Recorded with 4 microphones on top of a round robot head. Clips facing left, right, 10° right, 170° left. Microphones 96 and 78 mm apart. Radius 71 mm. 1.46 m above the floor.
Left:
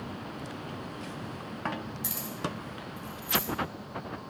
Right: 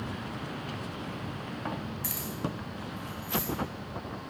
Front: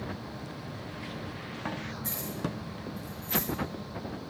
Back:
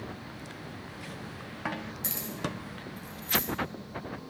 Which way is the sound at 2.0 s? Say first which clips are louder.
Even, even; 160° left.